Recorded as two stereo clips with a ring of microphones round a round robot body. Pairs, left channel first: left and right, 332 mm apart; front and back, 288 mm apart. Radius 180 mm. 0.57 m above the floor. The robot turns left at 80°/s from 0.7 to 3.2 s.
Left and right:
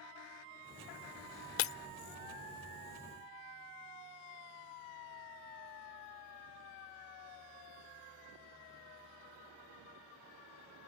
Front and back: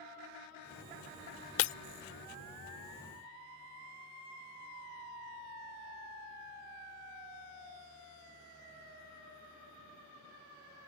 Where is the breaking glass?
45° left; by 1.7 s 30° left.